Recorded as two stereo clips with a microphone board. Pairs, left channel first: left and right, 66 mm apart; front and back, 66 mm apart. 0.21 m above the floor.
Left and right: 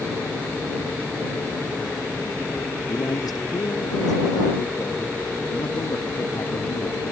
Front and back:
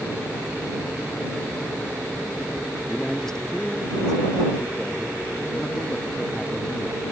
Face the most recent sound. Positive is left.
turn(degrees=80)